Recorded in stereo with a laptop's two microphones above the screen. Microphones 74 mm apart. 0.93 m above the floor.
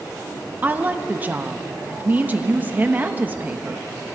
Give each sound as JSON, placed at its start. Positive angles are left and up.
{"t": 0.6, "sound": "a woman speaking", "side_deg": -25, "distance_m": 1.1}